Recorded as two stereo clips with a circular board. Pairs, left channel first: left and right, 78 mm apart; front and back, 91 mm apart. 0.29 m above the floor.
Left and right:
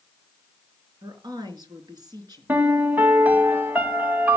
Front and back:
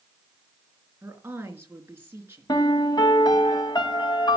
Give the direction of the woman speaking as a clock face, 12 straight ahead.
4 o'clock.